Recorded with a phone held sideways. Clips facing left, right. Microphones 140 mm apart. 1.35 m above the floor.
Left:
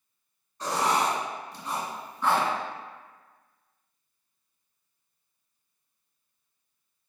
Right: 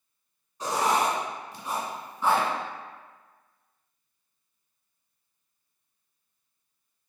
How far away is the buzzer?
I don't hear a buzzer.